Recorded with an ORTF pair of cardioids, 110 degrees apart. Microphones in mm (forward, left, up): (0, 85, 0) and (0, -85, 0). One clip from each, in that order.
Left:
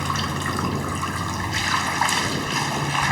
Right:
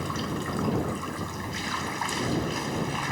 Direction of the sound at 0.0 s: 55° left.